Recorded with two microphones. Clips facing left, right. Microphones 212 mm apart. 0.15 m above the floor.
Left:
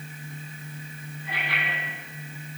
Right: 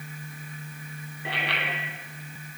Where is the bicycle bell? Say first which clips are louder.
Right 3 dB; 75° right (ahead or behind), 3.5 m.